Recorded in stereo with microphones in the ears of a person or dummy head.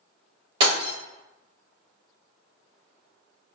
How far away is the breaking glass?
About 1.1 m.